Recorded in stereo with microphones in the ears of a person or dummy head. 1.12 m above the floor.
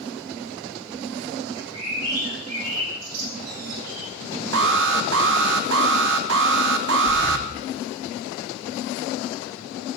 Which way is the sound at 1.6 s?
85° right.